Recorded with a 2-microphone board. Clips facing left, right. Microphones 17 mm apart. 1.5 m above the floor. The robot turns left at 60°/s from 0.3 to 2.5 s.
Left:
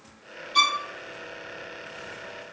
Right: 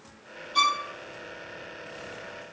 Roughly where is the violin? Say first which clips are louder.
Left 2 dB; left.